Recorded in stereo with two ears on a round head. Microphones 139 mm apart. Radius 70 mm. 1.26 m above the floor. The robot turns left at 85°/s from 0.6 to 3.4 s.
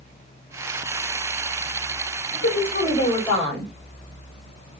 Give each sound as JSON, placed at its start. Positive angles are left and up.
{"t": 2.3, "sound": "a woman speaking", "azimuth_deg": 95, "distance_m": 5.0}